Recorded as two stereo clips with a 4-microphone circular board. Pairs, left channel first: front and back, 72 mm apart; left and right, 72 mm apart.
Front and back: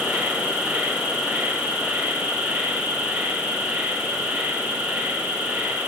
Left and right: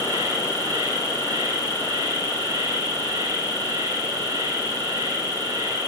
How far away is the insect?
About 1.4 m.